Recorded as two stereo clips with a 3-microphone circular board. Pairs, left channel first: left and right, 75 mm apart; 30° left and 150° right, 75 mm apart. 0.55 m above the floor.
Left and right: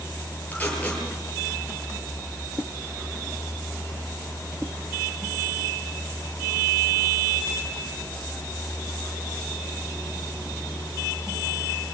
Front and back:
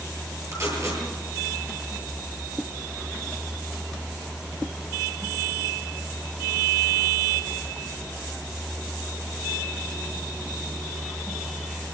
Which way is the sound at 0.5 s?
160° left.